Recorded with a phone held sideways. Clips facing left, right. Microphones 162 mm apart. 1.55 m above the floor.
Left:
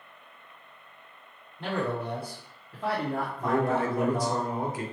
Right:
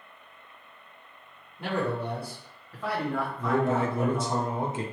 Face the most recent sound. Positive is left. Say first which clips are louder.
# even
turn(degrees=-25)  # may be behind; listen again after turning